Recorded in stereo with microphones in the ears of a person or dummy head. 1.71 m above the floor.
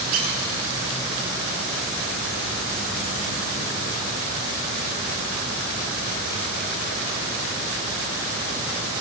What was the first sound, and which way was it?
A squeak, 40° right (ahead or behind).